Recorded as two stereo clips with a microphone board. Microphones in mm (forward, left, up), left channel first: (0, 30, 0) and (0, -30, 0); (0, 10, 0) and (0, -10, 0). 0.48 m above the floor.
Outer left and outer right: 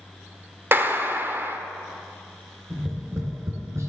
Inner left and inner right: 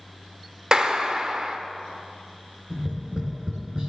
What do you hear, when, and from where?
0.7 s a clap: 40° right (ahead or behind), 1.0 m
2.7 s tapping: 55° right (ahead or behind), 3.5 m